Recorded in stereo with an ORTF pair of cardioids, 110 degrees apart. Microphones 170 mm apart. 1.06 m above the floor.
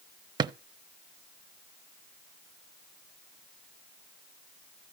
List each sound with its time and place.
0.4 s a drawer: 25° right, 0.6 m